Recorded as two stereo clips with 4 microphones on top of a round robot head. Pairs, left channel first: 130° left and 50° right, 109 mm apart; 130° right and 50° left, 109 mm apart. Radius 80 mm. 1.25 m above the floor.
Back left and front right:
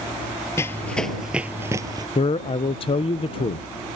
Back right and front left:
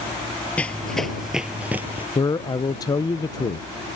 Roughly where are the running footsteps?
Behind.